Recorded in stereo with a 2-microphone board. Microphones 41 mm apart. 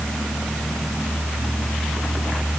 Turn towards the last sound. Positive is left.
No sound to turn to.